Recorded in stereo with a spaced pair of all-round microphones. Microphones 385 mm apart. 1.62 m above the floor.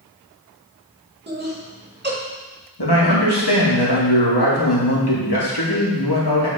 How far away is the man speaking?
About 2.5 m.